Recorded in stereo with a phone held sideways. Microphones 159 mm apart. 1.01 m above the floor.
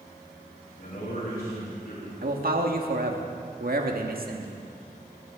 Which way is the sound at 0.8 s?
75° left (ahead or behind).